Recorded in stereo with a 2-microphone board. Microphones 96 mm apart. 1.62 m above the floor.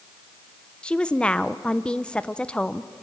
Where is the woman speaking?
10° left (ahead or behind), 0.7 m.